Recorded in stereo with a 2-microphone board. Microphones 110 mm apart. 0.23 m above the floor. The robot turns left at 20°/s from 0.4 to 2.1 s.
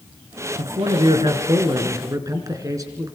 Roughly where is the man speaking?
Behind right.